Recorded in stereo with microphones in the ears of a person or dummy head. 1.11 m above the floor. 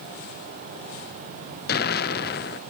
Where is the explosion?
45° left (ahead or behind), 0.5 m.